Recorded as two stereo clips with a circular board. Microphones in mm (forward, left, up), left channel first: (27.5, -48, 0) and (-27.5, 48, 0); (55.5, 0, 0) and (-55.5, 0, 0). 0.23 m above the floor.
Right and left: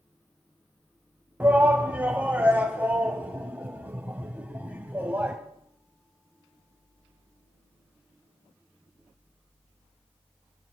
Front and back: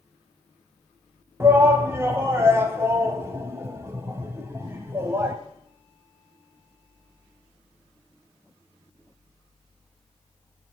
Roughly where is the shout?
Behind.